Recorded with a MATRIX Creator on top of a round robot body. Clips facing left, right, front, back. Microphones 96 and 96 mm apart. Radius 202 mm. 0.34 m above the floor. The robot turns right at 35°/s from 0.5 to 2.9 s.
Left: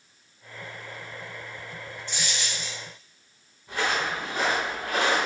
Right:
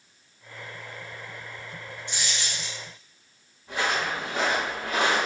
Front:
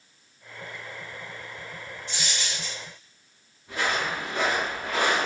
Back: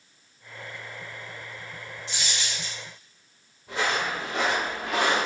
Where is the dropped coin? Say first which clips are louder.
Even, even; 165° right, 1.3 m; by 2.8 s 140° right, 1.3 m.